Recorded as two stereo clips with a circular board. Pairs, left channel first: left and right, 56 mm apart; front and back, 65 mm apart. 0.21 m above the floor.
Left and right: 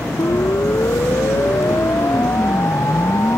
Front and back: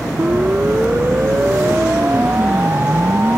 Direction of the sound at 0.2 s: 115° left.